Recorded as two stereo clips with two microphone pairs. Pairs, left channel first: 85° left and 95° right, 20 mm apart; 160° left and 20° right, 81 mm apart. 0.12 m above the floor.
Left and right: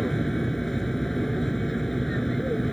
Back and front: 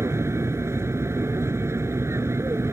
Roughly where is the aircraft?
Ahead.